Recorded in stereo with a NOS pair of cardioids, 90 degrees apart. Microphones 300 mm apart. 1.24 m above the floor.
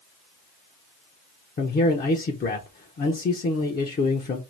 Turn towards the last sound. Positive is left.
turn(degrees=30)